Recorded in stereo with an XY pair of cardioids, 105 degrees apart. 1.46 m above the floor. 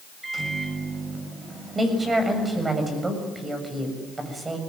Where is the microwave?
25° right, 7 m.